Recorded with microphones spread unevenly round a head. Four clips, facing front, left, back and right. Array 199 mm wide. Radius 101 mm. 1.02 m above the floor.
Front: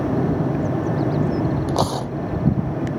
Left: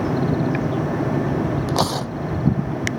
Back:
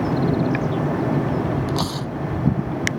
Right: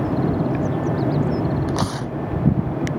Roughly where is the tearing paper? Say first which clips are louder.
Left 2 dB, front 3 dB; ahead left.